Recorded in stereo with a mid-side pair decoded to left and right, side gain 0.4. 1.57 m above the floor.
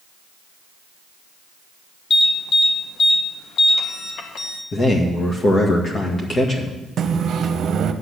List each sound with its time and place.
2.1 s an alarm: 70° left, 1.5 m
4.7 s a man speaking: 45° left, 1.9 m
7.0 s a microwave: 65° right, 0.9 m